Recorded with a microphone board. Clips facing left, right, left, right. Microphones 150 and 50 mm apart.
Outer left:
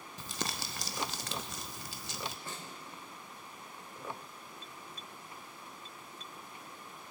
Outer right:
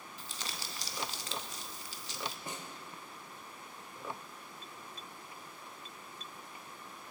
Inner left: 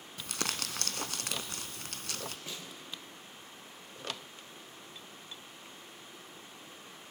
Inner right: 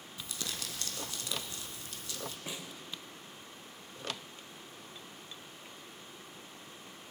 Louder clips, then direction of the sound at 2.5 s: Outer right 1 dB, inner right 1 dB; 20° right (ahead or behind).